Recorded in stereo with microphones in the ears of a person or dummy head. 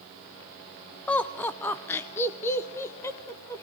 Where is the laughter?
10° left (ahead or behind), 0.5 m; by 3.6 s 15° left (ahead or behind), 1.7 m.